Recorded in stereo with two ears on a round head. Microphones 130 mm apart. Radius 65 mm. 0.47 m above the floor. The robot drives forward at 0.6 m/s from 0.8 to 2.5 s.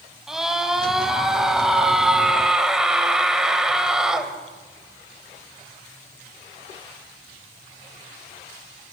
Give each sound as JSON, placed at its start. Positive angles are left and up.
{"t": 0.3, "sound": "a scream", "side_deg": -5, "distance_m": 3.5}